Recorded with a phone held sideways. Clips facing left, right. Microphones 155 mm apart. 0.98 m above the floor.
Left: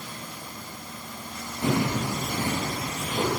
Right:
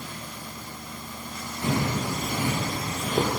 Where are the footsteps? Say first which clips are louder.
Left 2 dB; 25° left (ahead or behind), 1.8 m; by 3.3 s 50° right (ahead or behind), 1.7 m.